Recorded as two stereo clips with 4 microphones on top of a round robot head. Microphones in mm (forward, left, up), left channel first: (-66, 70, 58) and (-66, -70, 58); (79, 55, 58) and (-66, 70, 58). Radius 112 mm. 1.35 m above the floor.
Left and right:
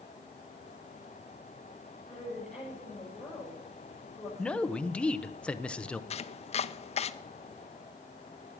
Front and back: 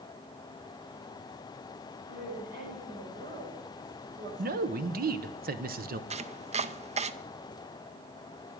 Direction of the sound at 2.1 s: 170° left.